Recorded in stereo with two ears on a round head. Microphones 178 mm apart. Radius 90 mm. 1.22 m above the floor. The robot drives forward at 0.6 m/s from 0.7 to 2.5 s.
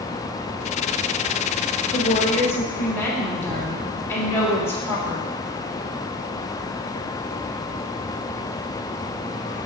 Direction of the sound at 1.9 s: 15° left (ahead or behind).